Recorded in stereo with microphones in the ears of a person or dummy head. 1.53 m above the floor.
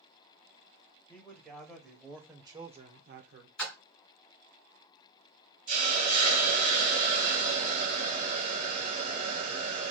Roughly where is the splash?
Centre.